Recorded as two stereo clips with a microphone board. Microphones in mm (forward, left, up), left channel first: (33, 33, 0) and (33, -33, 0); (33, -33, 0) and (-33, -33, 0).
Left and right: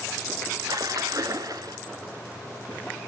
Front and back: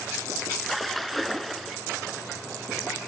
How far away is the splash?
About 0.8 m.